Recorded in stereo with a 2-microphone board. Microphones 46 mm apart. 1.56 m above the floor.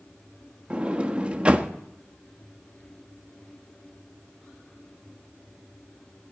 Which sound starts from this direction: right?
A sliding door, at 0.7 s.